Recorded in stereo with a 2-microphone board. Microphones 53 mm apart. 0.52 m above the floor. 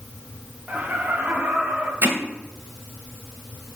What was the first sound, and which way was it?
Laughter, 25° right (ahead or behind).